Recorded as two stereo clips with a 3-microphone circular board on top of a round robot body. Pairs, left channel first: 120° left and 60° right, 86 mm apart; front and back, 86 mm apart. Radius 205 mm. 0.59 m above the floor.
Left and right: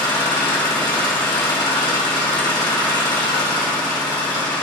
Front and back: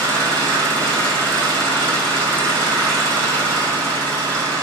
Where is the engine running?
155° left, 3 m.